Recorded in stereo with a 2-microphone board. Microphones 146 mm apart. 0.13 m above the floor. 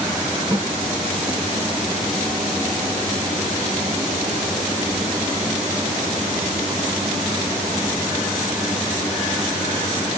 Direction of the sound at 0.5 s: 20° right (ahead or behind).